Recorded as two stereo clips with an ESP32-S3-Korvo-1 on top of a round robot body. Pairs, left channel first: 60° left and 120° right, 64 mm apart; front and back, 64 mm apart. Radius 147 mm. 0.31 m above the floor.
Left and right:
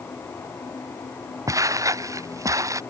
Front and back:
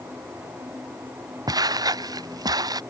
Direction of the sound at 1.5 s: 160° right.